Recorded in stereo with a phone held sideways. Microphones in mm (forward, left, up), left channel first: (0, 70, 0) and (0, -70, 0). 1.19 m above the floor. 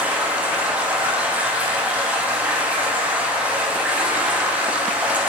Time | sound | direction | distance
0.0 | running water | 10° right (ahead or behind) | 1.1 m